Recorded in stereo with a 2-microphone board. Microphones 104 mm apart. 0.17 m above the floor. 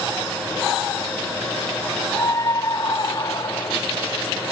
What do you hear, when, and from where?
2.1 s a scream: 30° left (ahead or behind); by 3.8 s 40° left (ahead or behind)